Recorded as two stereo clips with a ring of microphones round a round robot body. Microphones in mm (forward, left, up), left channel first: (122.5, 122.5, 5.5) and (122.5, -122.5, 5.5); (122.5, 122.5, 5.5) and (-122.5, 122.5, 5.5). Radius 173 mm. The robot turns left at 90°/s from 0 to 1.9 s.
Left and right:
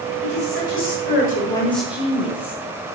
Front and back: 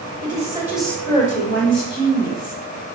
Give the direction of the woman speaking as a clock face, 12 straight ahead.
7 o'clock.